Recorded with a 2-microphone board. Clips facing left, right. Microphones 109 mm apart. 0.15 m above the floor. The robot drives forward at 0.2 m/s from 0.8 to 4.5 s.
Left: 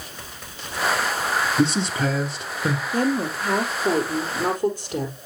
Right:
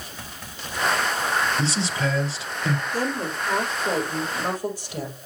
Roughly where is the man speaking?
Left.